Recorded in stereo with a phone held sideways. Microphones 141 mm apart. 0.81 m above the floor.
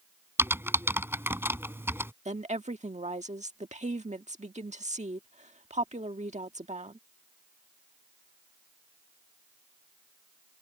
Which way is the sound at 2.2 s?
55° right (ahead or behind).